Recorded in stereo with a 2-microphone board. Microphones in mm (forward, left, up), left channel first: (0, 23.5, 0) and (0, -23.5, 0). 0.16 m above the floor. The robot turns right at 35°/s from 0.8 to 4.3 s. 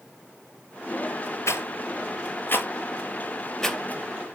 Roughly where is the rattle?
Left.